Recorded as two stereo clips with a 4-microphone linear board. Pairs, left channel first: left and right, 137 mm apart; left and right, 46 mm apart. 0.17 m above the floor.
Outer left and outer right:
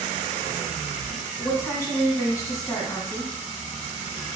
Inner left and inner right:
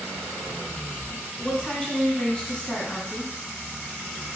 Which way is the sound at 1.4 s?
20° left (ahead or behind).